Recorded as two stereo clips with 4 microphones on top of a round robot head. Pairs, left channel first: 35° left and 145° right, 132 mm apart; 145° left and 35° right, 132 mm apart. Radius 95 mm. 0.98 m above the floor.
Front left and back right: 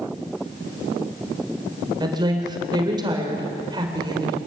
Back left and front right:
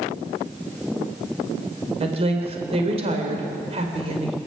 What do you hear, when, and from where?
2.0 s a woman speaking: 85° right, 3.5 m